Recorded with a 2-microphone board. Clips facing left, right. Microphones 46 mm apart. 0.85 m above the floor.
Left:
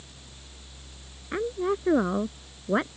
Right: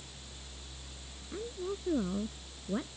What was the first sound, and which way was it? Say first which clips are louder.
A woman speaking: left 11 dB; 65° left (ahead or behind).